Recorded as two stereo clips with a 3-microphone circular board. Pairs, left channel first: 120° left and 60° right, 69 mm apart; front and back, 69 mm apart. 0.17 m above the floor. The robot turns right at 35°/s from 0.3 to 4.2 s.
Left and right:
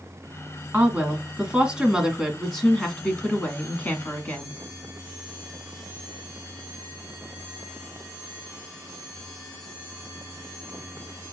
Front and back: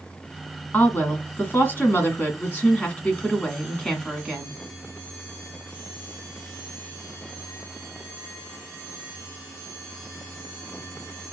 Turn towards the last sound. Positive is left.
turn(degrees=90)